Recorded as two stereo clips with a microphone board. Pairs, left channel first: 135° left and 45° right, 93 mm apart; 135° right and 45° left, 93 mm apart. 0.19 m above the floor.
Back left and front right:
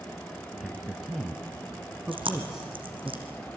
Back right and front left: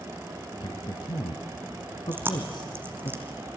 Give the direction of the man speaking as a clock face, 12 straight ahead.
4 o'clock.